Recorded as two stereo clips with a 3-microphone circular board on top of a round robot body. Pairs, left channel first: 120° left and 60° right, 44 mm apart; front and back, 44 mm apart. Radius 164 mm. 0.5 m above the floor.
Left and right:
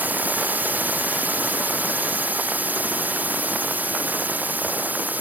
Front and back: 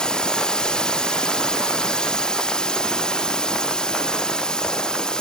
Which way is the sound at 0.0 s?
65° right.